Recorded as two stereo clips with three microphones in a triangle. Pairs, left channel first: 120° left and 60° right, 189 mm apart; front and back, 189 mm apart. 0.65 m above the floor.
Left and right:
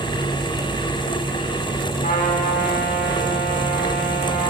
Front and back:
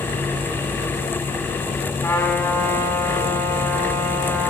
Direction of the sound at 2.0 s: 75° left.